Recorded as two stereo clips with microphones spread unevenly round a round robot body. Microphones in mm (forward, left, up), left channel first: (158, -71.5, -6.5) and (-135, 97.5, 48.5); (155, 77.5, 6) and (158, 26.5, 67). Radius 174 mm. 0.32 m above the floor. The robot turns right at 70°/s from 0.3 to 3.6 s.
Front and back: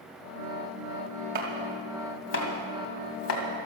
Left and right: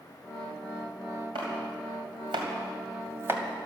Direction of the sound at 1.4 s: 145° right.